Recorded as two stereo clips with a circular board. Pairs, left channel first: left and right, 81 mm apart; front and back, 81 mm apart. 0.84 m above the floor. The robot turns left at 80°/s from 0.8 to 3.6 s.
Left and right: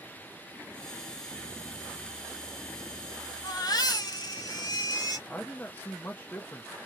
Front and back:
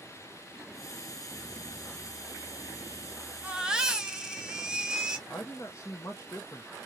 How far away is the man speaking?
About 0.6 m.